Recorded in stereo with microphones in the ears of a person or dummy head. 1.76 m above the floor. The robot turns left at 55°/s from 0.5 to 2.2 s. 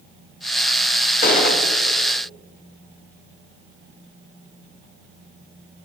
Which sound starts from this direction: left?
A gunshot, at 1.2 s.